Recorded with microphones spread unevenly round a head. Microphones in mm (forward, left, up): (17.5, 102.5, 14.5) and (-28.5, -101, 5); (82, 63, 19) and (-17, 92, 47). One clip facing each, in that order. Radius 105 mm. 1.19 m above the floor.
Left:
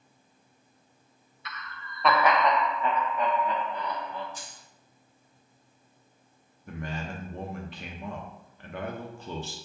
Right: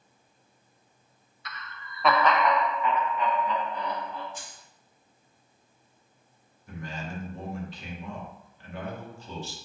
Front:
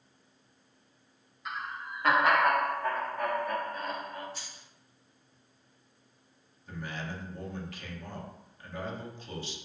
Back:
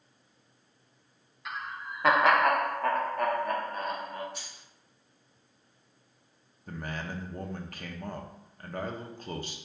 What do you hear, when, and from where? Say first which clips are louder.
1.4 s laughter: left 1 dB, even; 155° right, 0.6 m; by 4.2 s 115° left, 1.5 m
4.3 s keys jangling: right 1 dB, back 1 dB; 135° left, 1.6 m
6.7 s a man speaking: left 2 dB, back 2 dB; 120° left, 0.9 m